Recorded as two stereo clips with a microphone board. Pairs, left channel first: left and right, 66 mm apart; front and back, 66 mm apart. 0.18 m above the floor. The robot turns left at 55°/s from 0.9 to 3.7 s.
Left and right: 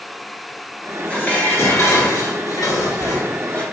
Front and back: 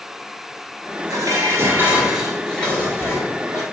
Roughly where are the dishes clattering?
Behind.